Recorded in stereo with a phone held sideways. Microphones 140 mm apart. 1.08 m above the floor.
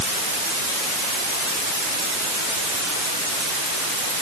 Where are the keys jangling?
I don't hear keys jangling.